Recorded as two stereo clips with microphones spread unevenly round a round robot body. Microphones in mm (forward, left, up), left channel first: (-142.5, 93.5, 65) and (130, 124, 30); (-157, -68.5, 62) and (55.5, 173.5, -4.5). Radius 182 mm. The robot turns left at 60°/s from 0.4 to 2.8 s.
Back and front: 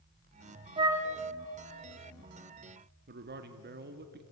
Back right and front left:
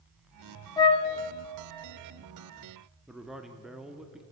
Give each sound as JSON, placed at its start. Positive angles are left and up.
{"t": 0.8, "sound": "a flute", "azimuth_deg": -70, "distance_m": 0.6}
{"t": 3.1, "sound": "a man speaking", "azimuth_deg": -30, "distance_m": 0.9}